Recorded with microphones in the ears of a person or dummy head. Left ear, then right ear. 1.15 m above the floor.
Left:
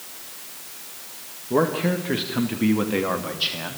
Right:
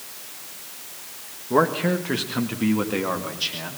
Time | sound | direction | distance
1.5 | a man speaking | 40° right (ahead or behind) | 1.6 m